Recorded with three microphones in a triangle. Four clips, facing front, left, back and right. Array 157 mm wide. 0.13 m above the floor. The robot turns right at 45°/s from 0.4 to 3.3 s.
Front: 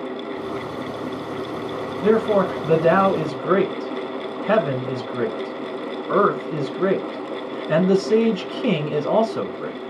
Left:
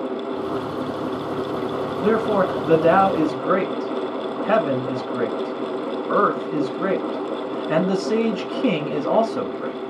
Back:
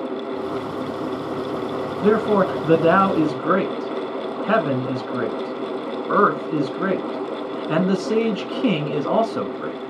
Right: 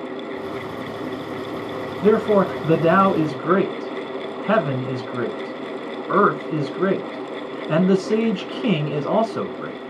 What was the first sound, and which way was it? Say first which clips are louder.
A man speaking: right 3 dB, even; 155° left.